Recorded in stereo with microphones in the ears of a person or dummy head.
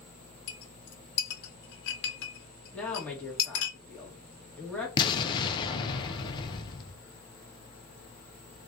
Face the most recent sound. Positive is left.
turn(degrees=25)  # may be behind; listen again after turning